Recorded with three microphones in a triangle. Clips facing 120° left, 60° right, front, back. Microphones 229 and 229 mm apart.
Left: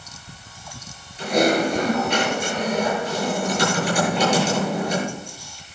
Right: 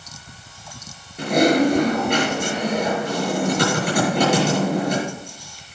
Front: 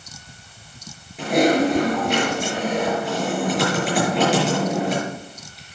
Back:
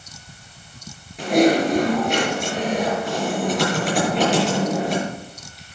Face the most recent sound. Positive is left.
turn(degrees=-90)